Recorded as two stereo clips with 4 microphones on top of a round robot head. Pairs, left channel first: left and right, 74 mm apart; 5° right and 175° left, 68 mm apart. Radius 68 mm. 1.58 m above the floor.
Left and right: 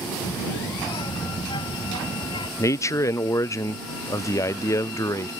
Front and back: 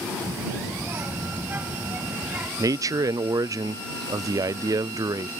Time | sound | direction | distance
0.2 | a child speaking | 120° left | ?
2.6 | a man speaking | 140° left | ?